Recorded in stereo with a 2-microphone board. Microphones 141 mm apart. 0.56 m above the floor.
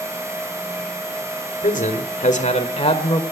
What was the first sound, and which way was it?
A man speaking, 65° left (ahead or behind).